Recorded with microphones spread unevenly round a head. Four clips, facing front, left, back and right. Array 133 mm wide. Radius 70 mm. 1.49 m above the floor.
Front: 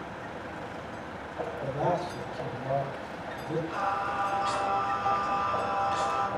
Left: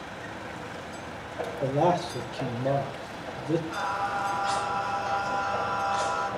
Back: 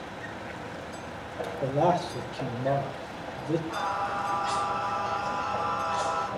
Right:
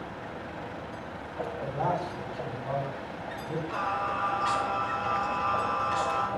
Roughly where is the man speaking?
Behind left.